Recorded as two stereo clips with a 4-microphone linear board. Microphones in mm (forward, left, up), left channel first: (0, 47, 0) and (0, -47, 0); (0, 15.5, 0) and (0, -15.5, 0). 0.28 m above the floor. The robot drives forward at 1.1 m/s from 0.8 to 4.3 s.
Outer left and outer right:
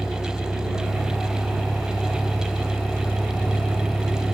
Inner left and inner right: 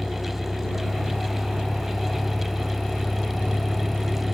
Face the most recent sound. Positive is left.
turn(degrees=10)  # may be behind; listen again after turning